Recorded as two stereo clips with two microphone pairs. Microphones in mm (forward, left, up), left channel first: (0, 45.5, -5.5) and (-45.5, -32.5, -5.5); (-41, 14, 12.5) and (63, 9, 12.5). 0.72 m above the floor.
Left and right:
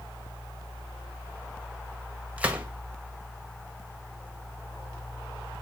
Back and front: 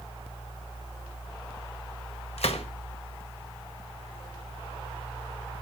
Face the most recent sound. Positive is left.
turn(degrees=165)